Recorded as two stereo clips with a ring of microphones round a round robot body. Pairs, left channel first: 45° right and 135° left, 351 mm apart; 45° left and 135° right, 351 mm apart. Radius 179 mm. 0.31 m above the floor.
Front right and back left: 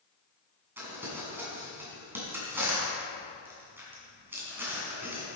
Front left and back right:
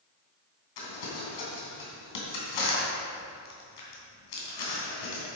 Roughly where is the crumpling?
Ahead left.